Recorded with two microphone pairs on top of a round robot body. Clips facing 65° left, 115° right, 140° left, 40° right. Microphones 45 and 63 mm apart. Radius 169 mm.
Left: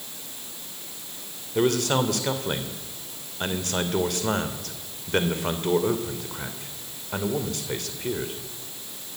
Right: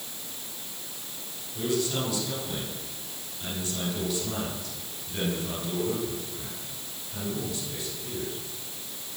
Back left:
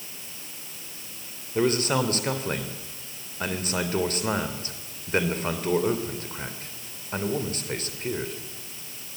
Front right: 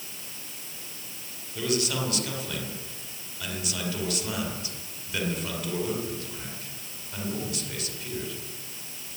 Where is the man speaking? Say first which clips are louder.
Left 6 dB, back left 5 dB; 90° left, 3 m.